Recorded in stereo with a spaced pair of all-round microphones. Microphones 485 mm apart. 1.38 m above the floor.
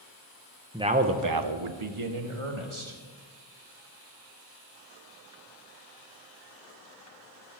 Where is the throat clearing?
No throat clearing in this recording.